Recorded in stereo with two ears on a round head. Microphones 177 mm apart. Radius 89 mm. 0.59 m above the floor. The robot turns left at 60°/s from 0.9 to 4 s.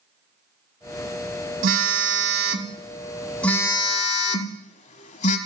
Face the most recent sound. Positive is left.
turn(degrees=140)